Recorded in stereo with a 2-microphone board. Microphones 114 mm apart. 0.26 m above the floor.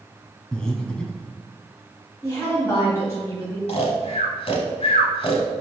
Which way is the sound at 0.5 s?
10° left (ahead or behind).